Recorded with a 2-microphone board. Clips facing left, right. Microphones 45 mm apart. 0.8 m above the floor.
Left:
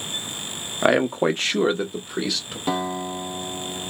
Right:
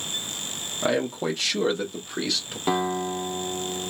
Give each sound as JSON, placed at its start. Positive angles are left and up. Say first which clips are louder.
{"t": 0.8, "sound": "a man speaking", "louder": "left 6 dB", "side_deg": 50, "distance_m": 0.6}
{"t": 2.7, "sound": "a guitar", "louder": "right 1 dB", "side_deg": -15, "distance_m": 0.9}